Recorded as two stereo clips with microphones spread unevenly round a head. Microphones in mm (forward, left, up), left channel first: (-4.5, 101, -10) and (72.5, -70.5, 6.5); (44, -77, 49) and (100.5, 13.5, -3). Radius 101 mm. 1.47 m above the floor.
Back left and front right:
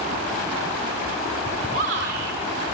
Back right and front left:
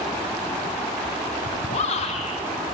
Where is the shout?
105° right, 6 m.